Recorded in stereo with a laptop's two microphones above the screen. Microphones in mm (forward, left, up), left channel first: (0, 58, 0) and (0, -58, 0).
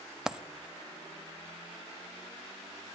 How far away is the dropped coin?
About 0.5 m.